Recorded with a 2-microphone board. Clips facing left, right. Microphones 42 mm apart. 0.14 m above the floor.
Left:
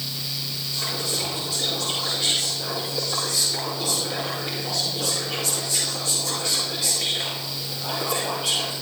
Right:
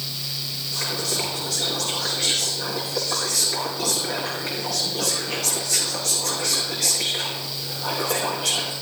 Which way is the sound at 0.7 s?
70° right (ahead or behind).